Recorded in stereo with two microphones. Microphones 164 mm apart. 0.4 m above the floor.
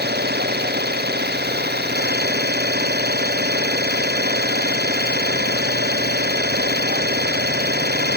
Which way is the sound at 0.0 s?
80° right.